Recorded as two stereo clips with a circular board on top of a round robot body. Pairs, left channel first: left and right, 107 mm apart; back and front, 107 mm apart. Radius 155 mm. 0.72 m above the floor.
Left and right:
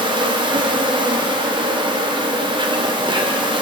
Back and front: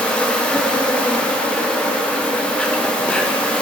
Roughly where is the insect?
Right.